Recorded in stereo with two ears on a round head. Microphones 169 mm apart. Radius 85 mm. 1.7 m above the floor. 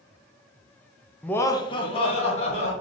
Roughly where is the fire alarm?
No fire alarm in this recording.